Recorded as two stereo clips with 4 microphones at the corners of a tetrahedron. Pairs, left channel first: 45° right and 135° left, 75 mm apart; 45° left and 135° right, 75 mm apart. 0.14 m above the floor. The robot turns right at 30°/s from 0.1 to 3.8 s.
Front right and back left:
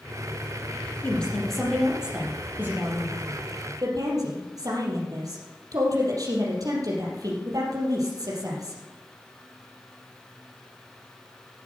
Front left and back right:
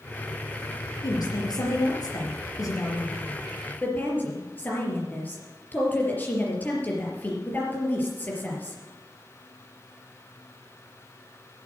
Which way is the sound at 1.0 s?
25° left.